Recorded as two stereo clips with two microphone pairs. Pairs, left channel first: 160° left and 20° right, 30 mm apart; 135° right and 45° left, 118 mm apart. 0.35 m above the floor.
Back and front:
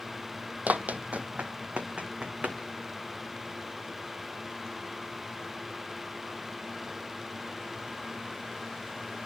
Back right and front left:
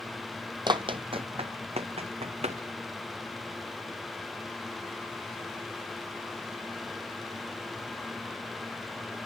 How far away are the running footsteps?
About 0.9 m.